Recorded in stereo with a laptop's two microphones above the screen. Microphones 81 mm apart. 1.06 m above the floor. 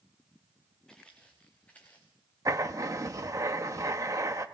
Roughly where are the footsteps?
Centre.